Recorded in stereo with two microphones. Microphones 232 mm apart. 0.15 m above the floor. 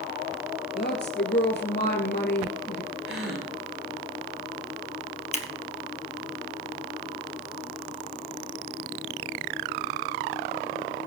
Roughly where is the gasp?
Right.